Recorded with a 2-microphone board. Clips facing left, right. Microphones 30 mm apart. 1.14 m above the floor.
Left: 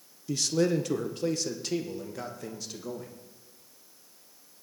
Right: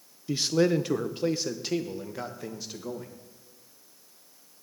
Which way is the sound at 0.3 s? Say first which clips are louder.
Right 2 dB; 25° right (ahead or behind).